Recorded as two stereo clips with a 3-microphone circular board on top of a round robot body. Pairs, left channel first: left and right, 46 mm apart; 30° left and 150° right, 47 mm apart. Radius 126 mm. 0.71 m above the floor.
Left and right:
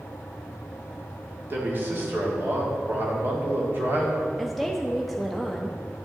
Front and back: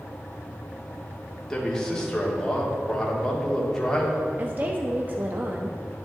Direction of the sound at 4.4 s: 175° left.